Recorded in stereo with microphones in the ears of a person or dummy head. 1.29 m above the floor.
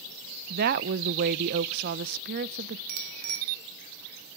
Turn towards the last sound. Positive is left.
turn(degrees=-75)  # may be behind; listen again after turning